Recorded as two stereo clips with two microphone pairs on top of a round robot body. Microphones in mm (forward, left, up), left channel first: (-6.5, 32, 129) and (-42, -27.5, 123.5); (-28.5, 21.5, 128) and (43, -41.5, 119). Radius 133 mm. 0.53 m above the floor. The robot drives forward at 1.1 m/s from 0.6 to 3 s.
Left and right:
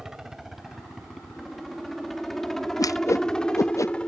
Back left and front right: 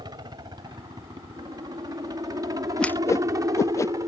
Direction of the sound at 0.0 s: 40° right.